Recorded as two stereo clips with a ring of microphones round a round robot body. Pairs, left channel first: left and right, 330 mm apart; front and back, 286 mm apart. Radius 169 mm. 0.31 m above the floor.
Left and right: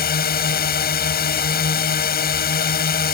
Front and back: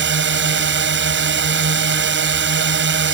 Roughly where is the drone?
Behind left.